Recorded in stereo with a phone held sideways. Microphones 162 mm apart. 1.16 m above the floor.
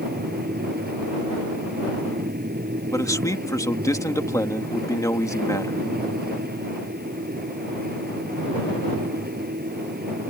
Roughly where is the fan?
Right.